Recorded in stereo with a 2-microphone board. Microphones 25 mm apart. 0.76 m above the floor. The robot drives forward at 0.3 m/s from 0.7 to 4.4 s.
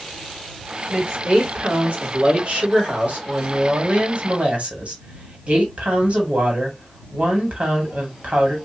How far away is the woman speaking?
About 1.8 m.